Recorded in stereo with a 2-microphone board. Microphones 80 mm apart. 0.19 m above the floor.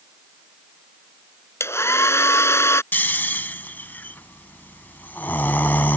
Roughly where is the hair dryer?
Left.